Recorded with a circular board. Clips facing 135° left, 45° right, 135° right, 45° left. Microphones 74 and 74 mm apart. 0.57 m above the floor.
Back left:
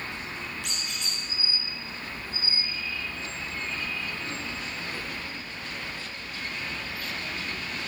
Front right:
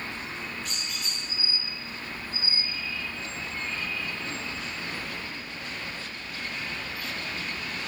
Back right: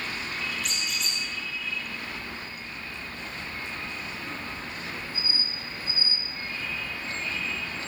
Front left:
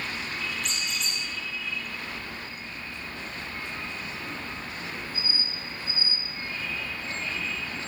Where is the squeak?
140° left, 9.5 m.